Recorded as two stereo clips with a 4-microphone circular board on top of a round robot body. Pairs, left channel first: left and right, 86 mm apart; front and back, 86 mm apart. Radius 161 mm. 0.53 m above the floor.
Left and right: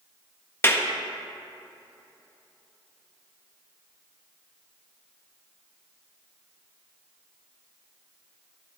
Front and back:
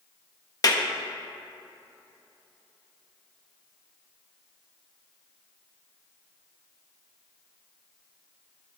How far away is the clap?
About 1.4 m.